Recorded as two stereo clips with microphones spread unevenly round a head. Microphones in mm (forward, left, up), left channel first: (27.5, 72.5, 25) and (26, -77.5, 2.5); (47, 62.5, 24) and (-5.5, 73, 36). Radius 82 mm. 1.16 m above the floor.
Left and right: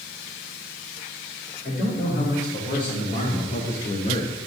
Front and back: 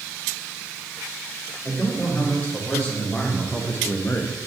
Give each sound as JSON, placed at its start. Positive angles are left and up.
{"t": 1.6, "sound": "a man speaking", "azimuth_deg": 60, "distance_m": 2.5}